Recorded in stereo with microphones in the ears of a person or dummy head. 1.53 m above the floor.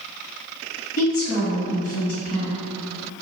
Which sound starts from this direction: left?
A woman speaking, at 1.0 s.